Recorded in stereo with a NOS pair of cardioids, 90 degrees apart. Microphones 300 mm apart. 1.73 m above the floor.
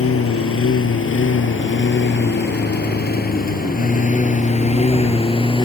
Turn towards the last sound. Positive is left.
turn(degrees=15)